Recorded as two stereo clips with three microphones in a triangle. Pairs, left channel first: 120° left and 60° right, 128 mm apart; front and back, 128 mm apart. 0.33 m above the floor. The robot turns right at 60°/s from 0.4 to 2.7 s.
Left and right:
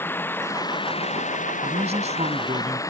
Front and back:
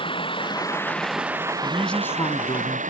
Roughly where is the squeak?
No squeak in this recording.